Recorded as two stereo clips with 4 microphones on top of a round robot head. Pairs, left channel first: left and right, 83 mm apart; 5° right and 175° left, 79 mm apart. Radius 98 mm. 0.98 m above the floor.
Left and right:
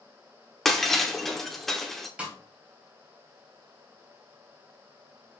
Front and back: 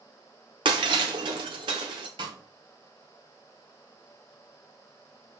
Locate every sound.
0.7 s breaking glass: 175° left, 0.7 m
2.2 s a snare drum: 165° right, 3 m